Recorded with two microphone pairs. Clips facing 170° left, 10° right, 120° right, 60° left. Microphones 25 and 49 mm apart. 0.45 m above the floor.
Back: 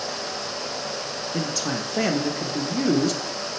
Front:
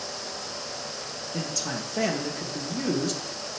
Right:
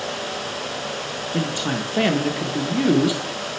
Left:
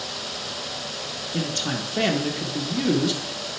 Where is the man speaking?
175° right, 0.7 m.